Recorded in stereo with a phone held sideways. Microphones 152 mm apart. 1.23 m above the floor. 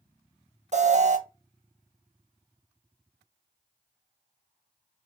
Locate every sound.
0.7 s an alarm: 50° right (ahead or behind), 0.6 m